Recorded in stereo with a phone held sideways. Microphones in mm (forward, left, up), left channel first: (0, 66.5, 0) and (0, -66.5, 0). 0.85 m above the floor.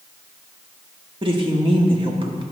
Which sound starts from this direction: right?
A woman speaking, at 1.2 s.